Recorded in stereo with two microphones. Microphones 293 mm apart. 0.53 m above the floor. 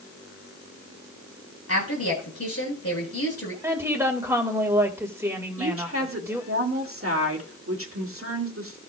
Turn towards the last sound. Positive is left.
turn(degrees=-50)  # may be behind; listen again after turning